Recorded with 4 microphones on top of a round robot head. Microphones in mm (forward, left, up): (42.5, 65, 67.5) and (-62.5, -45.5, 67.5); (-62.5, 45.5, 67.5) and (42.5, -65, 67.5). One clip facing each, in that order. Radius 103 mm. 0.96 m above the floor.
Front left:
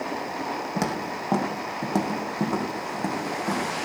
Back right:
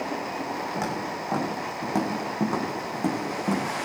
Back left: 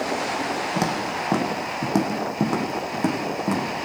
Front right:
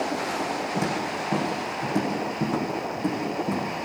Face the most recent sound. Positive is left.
turn(degrees=155)